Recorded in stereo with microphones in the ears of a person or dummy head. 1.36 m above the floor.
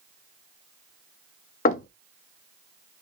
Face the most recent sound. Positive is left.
turn(degrees=50)  # may be behind; listen again after turning